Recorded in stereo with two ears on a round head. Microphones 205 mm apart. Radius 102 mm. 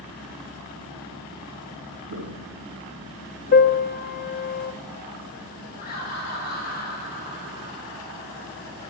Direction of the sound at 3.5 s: 35° left (ahead or behind).